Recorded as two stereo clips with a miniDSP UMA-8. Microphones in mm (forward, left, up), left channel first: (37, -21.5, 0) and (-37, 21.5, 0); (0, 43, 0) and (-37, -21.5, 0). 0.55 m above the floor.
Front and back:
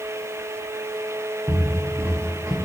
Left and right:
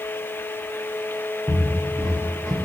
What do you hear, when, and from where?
1.5 s footsteps: 160° right, 2 m; by 2.5 s 125° right, 1.2 m